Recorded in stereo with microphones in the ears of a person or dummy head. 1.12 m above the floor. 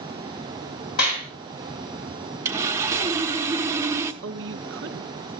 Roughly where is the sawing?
Centre.